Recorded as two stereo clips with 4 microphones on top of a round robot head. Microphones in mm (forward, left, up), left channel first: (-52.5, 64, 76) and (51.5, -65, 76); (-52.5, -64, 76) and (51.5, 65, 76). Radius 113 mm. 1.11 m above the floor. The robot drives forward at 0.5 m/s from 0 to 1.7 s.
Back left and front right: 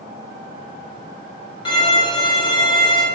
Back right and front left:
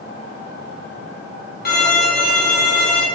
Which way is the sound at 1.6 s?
165° right.